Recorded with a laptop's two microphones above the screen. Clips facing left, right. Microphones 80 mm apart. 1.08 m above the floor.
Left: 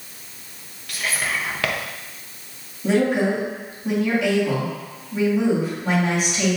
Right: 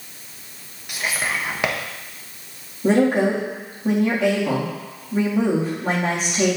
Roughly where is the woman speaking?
Right.